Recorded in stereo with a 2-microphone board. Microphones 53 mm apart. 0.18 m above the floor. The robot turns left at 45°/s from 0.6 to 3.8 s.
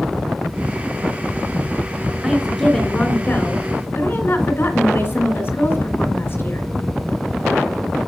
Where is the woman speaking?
170° right, 2.5 m; by 6.7 s 115° left, 2.5 m.